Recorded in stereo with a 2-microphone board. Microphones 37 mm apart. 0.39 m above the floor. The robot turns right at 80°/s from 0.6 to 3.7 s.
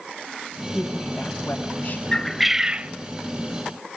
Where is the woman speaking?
20° right, 1.8 m; by 2.0 s 85° left, 1.8 m.